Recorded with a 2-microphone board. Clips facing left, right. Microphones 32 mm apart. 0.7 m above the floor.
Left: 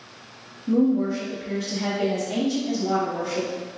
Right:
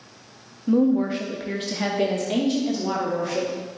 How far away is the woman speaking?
About 0.6 m.